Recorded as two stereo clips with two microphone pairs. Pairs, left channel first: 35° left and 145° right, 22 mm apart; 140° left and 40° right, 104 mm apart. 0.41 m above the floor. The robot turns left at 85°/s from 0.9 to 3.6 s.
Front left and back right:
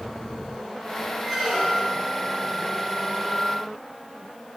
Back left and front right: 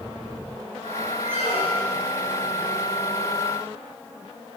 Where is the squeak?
150° left, 3 m; by 2.1 s 80° left, 3 m.